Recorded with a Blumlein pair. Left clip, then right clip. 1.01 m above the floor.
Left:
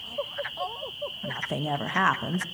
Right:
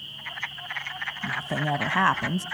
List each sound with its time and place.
1.2 s a woman speaking: straight ahead, 0.7 m